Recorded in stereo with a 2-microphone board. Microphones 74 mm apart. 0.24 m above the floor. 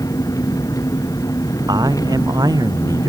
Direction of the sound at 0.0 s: 55° left (ahead or behind).